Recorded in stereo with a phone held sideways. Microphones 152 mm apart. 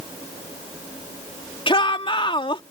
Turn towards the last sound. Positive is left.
turn(degrees=35)  # may be behind; listen again after turning